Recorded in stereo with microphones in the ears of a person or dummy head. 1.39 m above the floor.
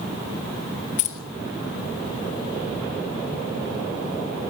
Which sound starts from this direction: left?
Keys jangling, at 1.0 s.